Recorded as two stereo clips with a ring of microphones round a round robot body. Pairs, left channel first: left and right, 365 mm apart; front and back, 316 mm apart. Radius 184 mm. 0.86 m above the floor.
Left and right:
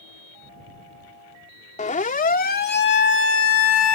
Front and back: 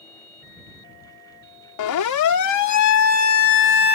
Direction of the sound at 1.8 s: 20° left.